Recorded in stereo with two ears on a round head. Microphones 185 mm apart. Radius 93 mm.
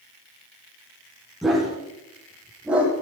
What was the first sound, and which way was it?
A dog barking, centre (ahead or behind).